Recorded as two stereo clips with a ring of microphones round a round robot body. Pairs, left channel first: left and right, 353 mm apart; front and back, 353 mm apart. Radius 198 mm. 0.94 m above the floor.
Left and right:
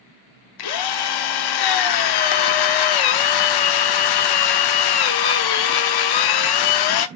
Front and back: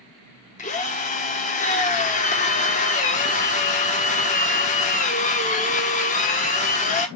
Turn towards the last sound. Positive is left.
turn(degrees=70)